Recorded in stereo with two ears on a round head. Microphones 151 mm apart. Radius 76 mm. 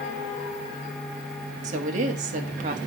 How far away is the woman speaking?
About 1.5 m.